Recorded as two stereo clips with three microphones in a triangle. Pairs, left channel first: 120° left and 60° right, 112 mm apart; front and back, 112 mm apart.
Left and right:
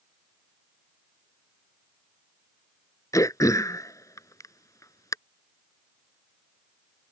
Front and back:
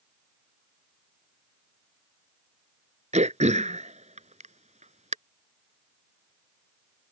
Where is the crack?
No crack in this recording.